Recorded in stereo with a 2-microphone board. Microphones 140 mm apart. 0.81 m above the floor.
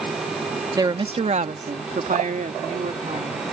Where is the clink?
No clink in this recording.